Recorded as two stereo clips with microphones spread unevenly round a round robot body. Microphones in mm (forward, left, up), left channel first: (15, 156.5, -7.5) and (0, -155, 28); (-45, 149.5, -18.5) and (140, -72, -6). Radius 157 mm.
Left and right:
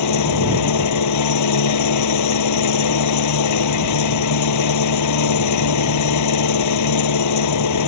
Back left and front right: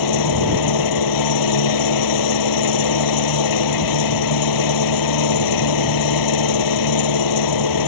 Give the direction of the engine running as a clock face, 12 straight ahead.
8 o'clock.